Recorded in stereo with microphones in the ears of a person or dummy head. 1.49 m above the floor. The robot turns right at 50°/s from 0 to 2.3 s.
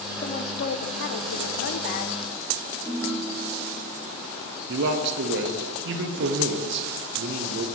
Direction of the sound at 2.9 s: 10° left (ahead or behind).